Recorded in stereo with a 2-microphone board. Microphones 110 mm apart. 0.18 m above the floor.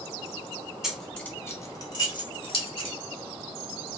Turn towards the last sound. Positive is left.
turn(degrees=60)  # may be behind; listen again after turning